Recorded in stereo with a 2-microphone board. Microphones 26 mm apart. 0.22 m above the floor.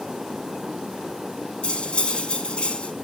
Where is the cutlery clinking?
45° left (ahead or behind), 1.2 m.